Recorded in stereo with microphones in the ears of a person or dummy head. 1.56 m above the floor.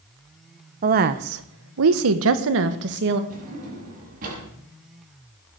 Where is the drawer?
45° right (ahead or behind), 6.5 m.